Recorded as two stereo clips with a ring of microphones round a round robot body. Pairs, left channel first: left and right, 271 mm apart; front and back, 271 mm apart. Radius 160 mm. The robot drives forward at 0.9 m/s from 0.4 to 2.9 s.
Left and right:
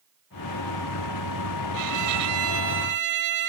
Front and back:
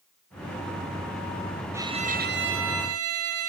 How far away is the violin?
About 0.9 m.